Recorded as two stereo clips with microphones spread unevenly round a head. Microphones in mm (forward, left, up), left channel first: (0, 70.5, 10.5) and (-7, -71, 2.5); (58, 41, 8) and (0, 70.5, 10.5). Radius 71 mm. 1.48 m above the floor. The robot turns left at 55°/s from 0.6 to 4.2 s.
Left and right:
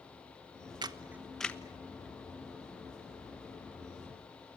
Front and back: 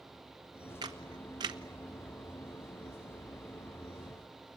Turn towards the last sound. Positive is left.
turn(degrees=20)